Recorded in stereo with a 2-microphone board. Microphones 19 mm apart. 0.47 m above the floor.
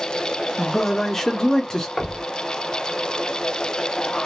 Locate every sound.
0.6 s a man speaking: 10° left (ahead or behind), 1.1 m; by 1.9 s 35° left (ahead or behind), 1.0 m
2.0 s knocking: 30° left (ahead or behind), 1.1 m